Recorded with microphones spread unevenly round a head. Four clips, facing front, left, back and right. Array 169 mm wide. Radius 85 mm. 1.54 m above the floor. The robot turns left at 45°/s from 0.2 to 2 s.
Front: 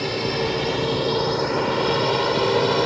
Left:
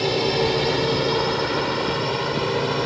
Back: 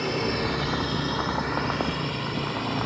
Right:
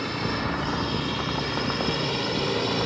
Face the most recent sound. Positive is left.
turn(degrees=10)